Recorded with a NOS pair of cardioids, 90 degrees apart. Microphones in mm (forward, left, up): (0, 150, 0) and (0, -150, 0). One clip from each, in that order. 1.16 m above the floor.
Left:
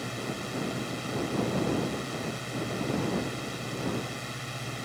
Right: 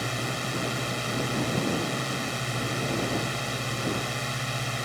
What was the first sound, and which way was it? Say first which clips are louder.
A drone: right 5 dB; 50° right.